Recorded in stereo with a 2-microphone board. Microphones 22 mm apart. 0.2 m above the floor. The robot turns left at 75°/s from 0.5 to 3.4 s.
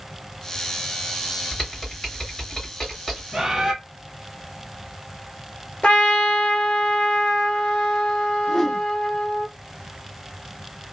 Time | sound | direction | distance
1.5 | typing on a keyboard | 170° left | 1.9 m
3.3 | a bird | 20° right (ahead or behind) | 1.3 m
5.8 | a trumpet | 65° left (ahead or behind) | 1.3 m
8.5 | a whoosh | 10° left (ahead or behind) | 0.6 m